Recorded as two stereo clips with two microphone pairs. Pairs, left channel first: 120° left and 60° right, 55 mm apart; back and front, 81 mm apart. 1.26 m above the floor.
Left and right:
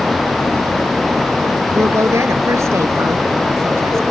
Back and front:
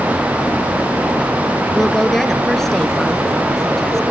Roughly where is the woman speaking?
Right.